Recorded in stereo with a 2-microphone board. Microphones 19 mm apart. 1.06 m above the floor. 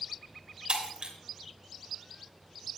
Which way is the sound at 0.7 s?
65° right (ahead or behind).